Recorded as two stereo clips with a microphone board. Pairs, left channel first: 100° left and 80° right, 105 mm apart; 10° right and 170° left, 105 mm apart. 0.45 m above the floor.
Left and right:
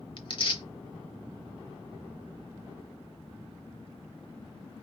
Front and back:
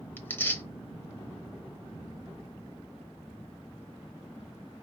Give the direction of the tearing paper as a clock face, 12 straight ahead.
10 o'clock.